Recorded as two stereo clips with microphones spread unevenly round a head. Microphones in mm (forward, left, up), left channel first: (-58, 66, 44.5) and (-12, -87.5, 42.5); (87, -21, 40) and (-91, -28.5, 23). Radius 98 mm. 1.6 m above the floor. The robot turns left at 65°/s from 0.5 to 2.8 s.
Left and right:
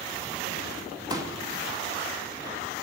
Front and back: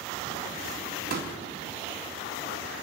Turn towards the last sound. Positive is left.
turn(degrees=110)